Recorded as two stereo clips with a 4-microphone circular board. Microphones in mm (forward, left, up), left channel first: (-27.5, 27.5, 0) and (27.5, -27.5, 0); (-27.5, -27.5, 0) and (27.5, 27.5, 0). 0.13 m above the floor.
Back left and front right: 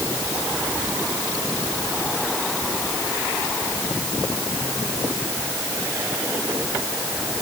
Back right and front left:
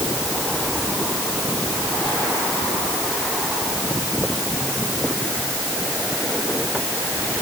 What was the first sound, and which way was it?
Only background noise.